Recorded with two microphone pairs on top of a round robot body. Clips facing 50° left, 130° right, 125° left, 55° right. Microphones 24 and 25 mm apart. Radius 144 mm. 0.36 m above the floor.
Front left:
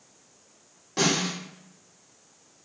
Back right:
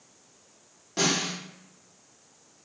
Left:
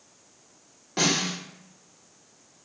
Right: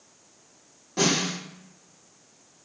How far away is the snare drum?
About 1.7 m.